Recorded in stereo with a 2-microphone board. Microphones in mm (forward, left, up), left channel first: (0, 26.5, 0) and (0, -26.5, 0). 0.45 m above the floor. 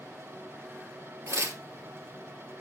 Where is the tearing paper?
65° right (ahead or behind), 2 m.